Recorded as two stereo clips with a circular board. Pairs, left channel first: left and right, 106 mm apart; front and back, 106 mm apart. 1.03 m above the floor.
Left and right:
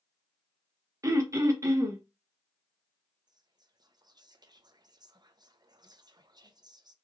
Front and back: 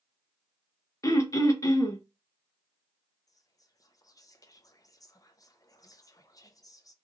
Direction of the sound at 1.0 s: 45° right.